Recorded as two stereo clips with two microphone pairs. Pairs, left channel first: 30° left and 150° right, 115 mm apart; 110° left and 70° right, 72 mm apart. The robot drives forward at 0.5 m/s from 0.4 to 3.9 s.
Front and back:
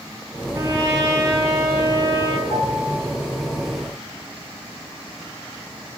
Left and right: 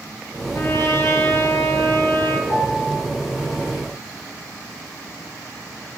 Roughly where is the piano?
Left.